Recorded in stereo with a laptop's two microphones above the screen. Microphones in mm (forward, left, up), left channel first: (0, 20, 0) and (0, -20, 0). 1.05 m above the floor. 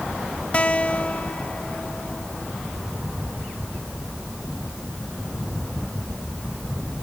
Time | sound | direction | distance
0.5 | a guitar | 30° left (ahead or behind) | ?